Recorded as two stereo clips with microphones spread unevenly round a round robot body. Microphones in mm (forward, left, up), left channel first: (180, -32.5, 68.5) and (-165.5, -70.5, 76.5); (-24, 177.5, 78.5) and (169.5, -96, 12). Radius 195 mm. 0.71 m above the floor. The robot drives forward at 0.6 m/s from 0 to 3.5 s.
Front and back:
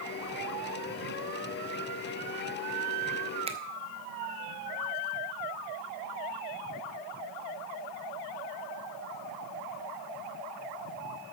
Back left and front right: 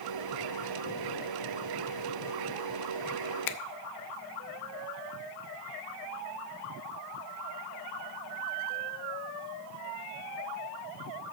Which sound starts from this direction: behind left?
A finger snap, at 3.5 s.